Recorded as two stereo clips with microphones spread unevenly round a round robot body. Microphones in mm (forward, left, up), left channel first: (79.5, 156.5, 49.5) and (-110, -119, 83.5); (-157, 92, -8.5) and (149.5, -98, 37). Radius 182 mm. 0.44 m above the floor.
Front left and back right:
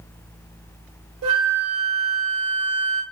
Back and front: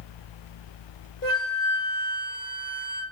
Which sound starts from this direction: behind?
A flute, at 1.2 s.